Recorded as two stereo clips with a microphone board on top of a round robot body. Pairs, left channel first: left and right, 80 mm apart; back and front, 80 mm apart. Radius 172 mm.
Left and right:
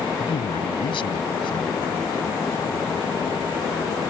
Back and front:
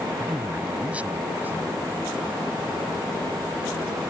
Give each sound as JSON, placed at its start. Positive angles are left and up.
{"t": 0.2, "sound": "a man speaking", "azimuth_deg": 80}